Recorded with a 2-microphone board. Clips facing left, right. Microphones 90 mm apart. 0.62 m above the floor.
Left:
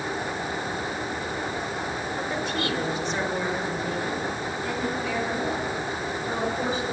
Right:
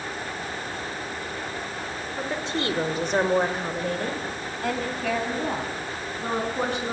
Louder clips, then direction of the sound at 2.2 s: Right 2 dB; 15° right (ahead or behind).